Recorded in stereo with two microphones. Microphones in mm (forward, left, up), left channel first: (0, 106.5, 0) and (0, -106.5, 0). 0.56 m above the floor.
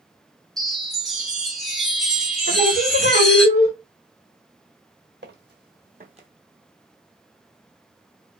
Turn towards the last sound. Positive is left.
turn(degrees=-25)  # may be behind; listen again after turning